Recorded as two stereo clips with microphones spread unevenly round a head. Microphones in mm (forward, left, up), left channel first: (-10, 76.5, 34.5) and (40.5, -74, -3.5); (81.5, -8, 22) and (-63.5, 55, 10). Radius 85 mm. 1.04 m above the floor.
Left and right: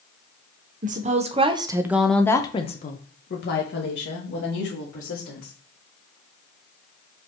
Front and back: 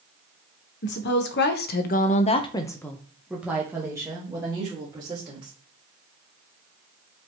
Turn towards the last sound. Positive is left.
turn(degrees=95)